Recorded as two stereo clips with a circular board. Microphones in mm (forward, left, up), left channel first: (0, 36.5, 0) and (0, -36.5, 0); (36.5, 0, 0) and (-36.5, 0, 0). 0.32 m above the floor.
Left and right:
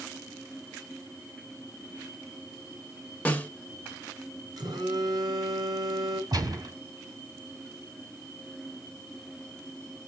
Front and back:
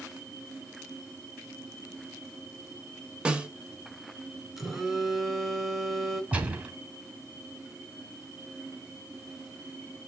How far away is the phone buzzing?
About 4 m.